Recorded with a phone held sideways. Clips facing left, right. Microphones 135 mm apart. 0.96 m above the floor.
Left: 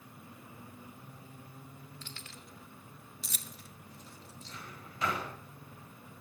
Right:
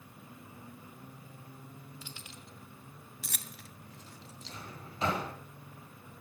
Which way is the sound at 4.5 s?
25° right (ahead or behind).